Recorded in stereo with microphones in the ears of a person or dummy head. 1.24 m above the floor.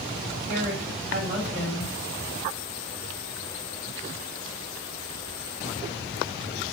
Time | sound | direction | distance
0.5 | a woman speaking | 60° right (ahead or behind) | 6.5 m